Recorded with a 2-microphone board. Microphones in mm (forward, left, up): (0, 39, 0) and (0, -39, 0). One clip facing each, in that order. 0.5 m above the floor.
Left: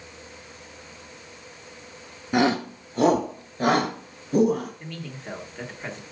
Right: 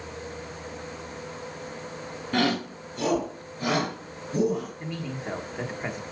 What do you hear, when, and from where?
2.3 s a shout: 15° left (ahead or behind), 0.7 m; by 4.7 s 45° left (ahead or behind), 3 m
4.8 s a man speaking: 15° right (ahead or behind), 1.2 m